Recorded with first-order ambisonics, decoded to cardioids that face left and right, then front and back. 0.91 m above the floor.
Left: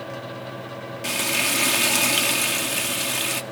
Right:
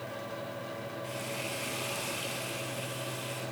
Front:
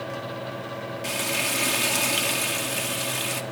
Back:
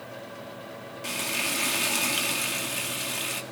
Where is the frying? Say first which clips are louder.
Left 17 dB, front 2 dB; 80° left, 1.5 m.